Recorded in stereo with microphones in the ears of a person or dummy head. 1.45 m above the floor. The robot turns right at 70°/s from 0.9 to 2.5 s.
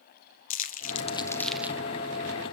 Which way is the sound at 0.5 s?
45° left (ahead or behind).